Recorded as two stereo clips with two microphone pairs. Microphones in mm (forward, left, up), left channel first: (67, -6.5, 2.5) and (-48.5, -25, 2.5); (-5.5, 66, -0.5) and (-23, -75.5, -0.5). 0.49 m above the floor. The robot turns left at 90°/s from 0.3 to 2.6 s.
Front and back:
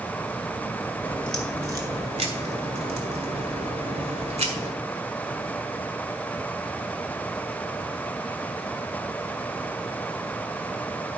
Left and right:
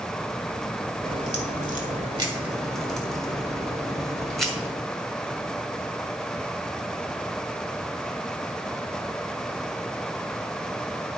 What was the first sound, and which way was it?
A crack, 50° right.